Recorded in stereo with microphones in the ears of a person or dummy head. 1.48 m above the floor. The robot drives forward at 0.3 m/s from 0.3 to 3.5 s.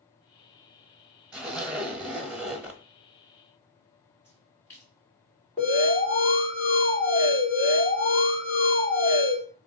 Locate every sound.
1.3 s a zipper: centre (ahead or behind), 1.0 m; by 2.8 s 5° right (ahead or behind), 0.6 m
4.2 s a splash: 15° left (ahead or behind), 3.5 m
5.6 s an alarm: 20° left (ahead or behind), 3 m